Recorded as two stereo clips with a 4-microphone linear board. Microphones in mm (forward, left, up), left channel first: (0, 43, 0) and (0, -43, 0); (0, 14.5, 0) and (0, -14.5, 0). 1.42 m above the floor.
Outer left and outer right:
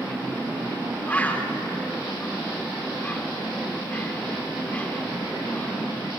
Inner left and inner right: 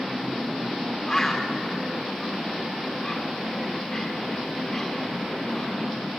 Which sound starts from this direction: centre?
A bird, at 1.1 s.